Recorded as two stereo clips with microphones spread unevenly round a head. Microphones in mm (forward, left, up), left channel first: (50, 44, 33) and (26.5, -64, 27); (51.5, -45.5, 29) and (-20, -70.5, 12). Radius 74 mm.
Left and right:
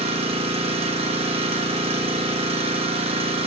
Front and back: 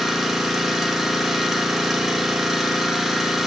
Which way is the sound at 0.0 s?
75° right.